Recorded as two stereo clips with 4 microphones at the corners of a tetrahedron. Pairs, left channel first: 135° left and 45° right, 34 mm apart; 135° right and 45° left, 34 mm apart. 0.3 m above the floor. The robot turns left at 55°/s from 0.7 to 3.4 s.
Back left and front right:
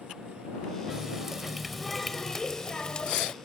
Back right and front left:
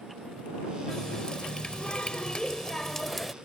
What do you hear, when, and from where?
0.9 s a running tap: 80° right; by 3.3 s 145° left